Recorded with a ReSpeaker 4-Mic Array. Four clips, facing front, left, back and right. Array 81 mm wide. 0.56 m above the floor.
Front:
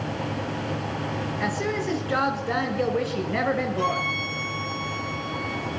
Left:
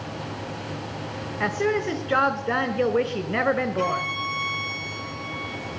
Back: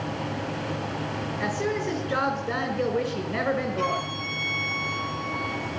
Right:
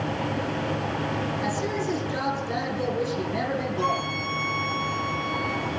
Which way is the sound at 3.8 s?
125° left.